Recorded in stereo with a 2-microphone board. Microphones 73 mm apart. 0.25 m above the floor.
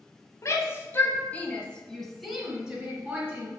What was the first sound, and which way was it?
A shout, 45° left (ahead or behind).